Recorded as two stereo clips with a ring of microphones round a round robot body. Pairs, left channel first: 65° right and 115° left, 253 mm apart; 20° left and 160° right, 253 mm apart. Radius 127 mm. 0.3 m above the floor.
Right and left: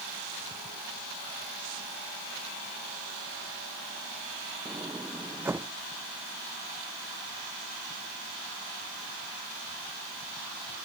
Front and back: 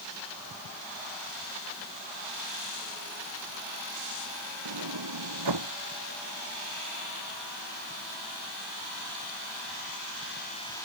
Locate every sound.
4.7 s a sliding door: 165° right